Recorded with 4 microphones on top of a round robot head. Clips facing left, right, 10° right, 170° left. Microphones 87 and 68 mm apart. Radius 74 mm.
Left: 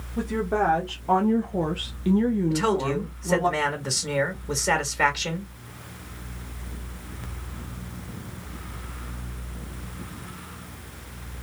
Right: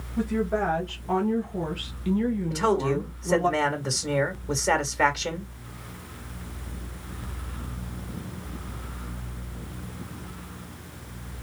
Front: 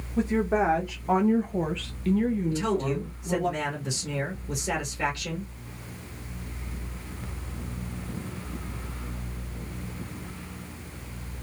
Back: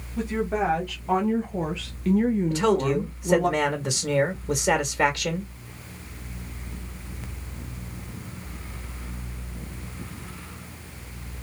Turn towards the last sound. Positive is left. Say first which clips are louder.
# even, back 5 dB
turn(degrees=180)